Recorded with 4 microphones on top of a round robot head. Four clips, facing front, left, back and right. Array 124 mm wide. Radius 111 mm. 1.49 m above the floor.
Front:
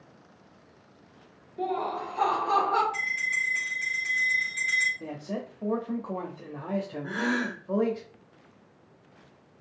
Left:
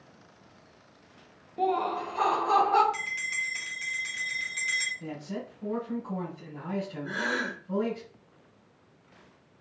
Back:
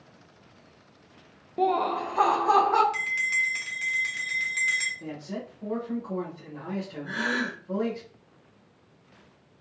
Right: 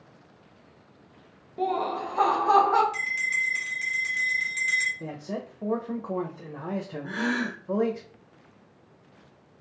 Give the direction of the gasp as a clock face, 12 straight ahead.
12 o'clock.